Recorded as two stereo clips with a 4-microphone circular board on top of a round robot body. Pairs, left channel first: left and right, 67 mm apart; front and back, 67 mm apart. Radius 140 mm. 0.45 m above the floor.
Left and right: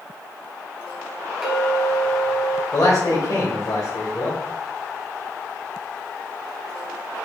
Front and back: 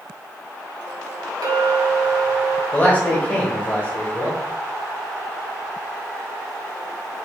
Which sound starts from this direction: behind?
A clink, at 1.4 s.